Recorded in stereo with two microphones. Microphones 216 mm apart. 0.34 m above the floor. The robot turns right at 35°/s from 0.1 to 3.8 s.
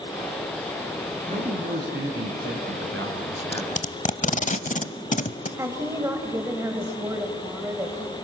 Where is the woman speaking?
15° right (ahead or behind), 2 m.